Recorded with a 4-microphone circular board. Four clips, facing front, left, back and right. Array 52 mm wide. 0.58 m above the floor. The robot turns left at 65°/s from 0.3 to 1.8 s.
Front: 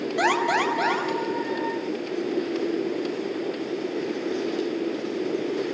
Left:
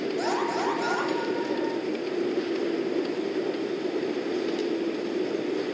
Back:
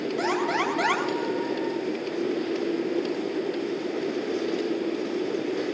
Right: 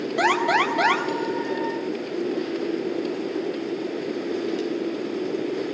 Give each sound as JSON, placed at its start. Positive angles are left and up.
{"t": 0.2, "sound": "an alarm", "azimuth_deg": -50, "distance_m": 6.0}